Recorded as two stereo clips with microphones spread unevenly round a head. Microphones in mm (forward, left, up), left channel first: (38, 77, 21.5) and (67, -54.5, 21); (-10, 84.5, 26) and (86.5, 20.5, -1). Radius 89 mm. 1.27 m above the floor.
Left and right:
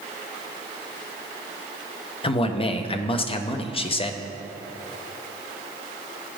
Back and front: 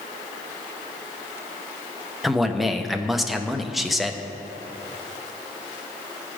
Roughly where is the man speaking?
Ahead left.